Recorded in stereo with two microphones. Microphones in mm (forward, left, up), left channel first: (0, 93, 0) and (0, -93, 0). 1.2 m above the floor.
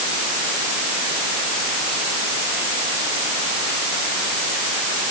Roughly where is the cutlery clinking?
No cutlery clinking in this recording.